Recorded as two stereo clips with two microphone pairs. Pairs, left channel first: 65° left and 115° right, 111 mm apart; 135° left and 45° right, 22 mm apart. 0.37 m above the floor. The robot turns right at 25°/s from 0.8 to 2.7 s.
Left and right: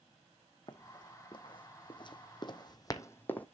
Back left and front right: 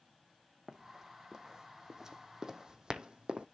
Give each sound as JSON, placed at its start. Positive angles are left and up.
{"t": 0.7, "sound": "running footsteps", "azimuth_deg": 15, "distance_m": 1.5}